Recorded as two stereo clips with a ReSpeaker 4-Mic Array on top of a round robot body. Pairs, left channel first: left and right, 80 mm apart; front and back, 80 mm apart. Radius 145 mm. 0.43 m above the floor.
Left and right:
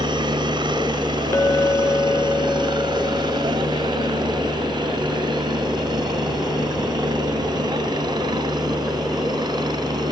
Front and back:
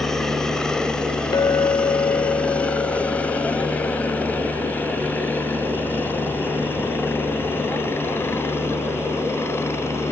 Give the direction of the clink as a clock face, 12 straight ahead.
11 o'clock.